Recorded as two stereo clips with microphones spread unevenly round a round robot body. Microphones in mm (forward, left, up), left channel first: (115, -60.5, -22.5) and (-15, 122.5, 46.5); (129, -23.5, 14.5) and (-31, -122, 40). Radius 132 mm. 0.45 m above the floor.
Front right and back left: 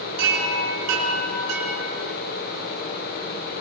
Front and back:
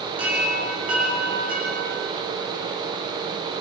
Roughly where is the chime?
Behind left.